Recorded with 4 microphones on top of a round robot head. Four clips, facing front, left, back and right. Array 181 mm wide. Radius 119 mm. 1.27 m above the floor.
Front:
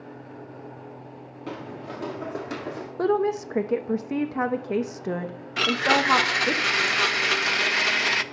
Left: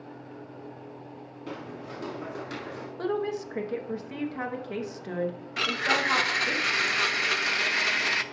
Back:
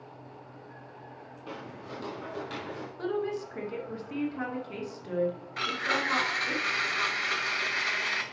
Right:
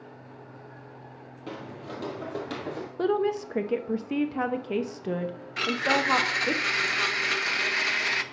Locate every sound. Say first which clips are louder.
1.5 s footsteps: right 1 dB, front 6 dB; 15° right, 1.4 m; by 2.9 s 40° right, 1.8 m
3.0 s a woman speaking: right 4 dB, front 9 dB; 30° right, 0.8 m
5.6 s a blender: right 2 dB, front 11 dB; 5° left, 0.7 m